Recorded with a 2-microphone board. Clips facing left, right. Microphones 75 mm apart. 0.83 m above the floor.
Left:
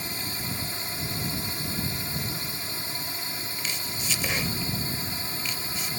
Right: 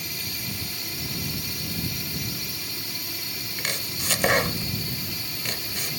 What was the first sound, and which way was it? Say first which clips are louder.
A drone: left 2 dB; 35° left (ahead or behind).